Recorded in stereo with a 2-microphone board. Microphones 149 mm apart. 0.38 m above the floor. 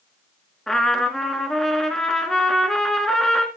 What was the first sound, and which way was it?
A trumpet, 5° left (ahead or behind).